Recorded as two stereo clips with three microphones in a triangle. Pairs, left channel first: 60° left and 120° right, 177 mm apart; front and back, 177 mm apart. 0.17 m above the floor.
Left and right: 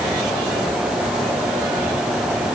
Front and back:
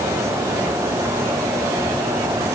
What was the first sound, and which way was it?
Only background noise.